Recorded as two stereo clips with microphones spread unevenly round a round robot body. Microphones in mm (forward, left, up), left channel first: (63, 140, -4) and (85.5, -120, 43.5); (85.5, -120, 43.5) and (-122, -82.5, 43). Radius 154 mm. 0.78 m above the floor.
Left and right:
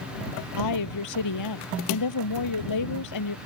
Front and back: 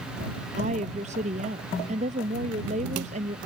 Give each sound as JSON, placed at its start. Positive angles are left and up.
{"t": 0.6, "sound": "a woman speaking", "azimuth_deg": 100}